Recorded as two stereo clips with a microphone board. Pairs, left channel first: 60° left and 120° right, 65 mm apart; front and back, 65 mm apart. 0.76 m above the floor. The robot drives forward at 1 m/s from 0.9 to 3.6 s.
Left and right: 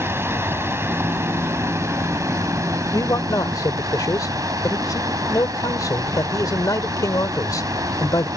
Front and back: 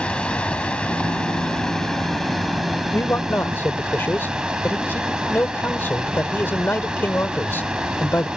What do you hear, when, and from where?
0.0 s running water: 75° right; by 8.4 s 105° right
2.9 s a man speaking: 45° left; by 8.3 s 55° left